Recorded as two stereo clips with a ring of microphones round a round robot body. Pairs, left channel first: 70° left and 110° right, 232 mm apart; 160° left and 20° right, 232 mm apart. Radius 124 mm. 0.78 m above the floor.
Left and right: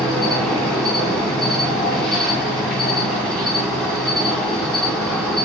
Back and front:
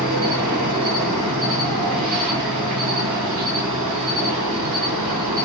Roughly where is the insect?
Ahead.